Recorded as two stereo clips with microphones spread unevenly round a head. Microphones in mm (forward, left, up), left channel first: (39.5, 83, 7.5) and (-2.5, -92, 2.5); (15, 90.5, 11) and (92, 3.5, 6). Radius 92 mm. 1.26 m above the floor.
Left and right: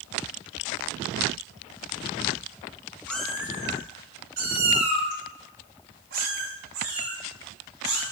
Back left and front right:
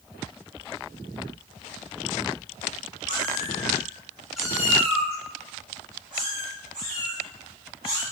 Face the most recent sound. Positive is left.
turn(degrees=-105)